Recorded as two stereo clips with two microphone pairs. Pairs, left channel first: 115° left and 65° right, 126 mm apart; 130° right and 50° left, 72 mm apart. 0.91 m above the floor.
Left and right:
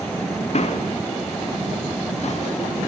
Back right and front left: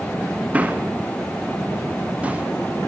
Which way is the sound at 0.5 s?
120° left.